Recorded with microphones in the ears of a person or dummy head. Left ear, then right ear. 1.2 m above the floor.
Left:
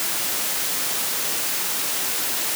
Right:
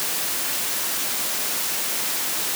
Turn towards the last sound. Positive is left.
No sound to turn to.